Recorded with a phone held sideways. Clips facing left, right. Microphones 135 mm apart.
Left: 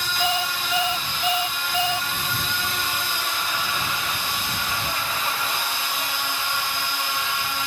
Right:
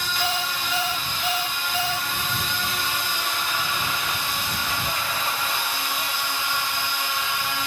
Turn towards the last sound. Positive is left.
turn(degrees=20)  # may be behind; listen again after turning